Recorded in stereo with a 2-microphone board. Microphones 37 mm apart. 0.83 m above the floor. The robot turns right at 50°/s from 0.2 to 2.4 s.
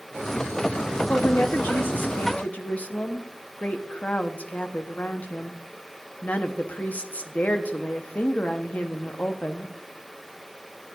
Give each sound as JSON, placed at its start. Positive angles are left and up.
{"t": 1.1, "sound": "a woman speaking", "azimuth_deg": 60, "distance_m": 1.2}